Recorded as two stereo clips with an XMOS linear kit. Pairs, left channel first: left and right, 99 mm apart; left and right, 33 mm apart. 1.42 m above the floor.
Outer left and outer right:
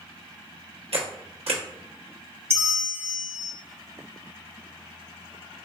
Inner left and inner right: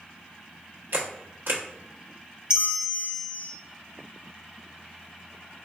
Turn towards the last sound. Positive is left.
turn(degrees=-25)  # may be behind; listen again after turning